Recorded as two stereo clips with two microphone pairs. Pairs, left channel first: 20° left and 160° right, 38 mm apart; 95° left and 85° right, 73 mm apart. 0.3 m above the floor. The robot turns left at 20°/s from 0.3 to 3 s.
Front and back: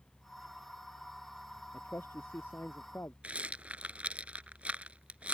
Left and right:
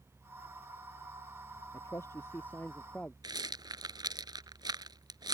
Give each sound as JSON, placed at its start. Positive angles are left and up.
{"t": 1.7, "sound": "a man speaking", "azimuth_deg": 45}
{"t": 3.2, "sound": "a rattle", "azimuth_deg": -105}